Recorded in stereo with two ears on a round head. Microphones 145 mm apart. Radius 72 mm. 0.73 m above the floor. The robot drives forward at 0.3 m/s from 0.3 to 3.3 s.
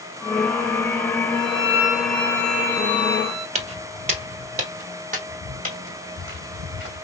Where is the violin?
20° right (ahead or behind), 1.6 m; by 3.5 s 15° right (ahead or behind), 2 m.